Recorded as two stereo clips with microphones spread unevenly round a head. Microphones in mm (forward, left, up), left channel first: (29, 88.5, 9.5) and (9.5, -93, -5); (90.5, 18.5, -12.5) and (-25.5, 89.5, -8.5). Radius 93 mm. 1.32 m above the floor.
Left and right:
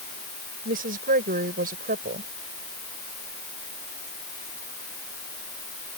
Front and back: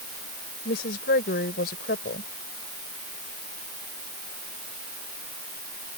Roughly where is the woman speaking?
Ahead right.